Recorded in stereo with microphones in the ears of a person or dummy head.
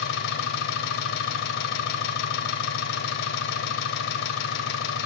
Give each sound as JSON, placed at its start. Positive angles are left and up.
{"t": 0.0, "sound": "an engine running", "side_deg": 60, "distance_m": 3.5}